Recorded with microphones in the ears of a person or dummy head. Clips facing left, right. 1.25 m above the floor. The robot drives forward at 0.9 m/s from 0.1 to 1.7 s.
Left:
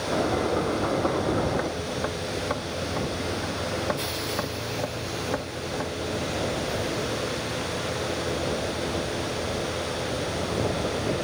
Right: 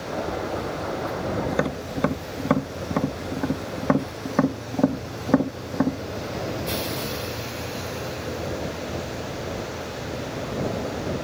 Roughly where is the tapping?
Right.